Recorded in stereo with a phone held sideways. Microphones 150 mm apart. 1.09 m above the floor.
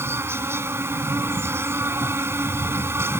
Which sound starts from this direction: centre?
An insect, at 0.0 s.